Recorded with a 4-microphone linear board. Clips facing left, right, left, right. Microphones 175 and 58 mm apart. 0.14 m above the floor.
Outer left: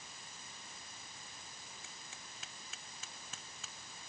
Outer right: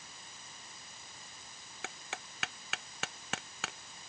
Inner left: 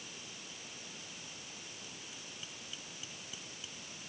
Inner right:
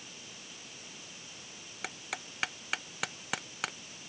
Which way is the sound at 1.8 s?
75° right (ahead or behind).